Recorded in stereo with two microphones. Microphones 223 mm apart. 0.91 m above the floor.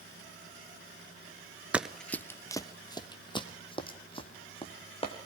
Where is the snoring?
No snoring in this recording.